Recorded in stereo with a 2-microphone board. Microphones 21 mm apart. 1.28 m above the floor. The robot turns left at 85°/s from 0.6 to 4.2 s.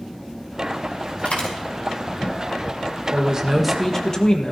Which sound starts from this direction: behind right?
A man speaking, at 3.1 s.